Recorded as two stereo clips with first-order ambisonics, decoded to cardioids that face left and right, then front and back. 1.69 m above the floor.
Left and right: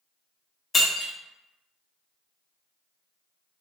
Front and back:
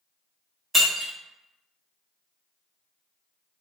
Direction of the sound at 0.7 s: 110° left.